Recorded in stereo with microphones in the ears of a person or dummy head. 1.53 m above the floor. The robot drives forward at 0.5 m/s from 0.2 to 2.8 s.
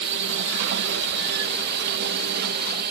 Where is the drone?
60° right (ahead or behind); by 2.9 s 55° right (ahead or behind).